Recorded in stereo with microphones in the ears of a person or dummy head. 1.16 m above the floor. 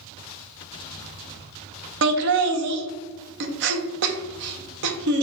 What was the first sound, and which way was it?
Laughter, 60° right (ahead or behind).